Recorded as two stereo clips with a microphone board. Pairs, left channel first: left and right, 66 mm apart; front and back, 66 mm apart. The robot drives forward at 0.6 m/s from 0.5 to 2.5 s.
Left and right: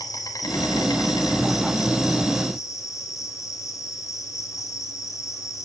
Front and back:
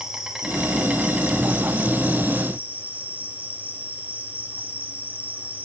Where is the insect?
100° left, 4 m; by 5.6 s 115° left, 4.5 m.